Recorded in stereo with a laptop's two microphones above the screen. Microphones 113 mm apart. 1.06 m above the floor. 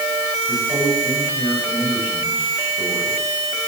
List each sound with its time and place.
0.5 s a man speaking: 15° right (ahead or behind), 7 m